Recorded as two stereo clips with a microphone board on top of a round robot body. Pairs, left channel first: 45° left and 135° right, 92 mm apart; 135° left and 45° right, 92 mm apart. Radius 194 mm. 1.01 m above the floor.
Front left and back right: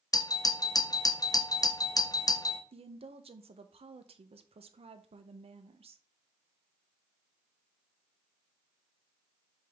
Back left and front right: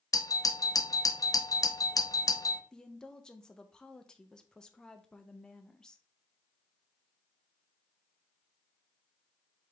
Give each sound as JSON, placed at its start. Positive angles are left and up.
{"t": 0.1, "sound": "a doorbell", "azimuth_deg": 90, "distance_m": 0.9}
{"t": 2.7, "sound": "a woman speaking", "azimuth_deg": -145, "distance_m": 0.8}